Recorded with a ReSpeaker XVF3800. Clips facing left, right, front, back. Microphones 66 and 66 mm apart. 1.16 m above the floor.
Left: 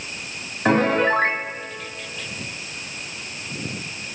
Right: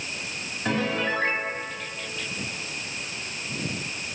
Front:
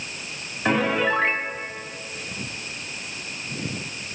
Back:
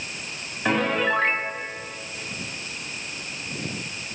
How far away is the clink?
No clink in this recording.